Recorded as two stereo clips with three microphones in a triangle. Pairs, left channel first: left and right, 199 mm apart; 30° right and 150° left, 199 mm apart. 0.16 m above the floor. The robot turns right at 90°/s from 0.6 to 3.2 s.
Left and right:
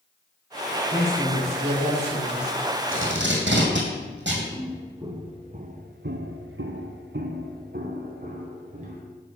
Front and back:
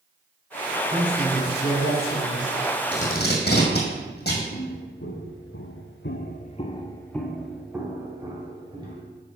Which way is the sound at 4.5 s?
10° right.